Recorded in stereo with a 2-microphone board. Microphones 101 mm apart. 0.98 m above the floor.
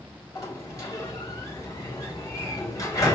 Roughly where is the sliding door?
Left.